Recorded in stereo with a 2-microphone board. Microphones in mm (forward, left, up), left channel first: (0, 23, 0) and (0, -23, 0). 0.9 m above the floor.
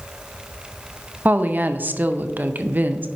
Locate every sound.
1.2 s a woman speaking: 40° right (ahead or behind), 0.6 m